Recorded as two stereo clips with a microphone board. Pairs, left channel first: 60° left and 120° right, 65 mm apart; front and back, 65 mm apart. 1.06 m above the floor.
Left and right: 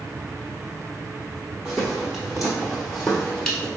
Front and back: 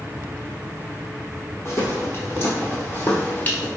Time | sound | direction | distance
1.6 | footsteps | 40° right | 1.7 m